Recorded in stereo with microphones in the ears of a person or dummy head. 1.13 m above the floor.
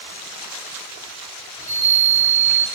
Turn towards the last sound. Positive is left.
turn(degrees=-25)  # may be behind; listen again after turning